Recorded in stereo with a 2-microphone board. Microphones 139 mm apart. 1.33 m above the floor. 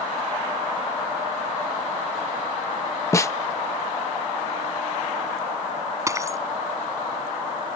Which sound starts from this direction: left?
A snare drum, at 3.1 s.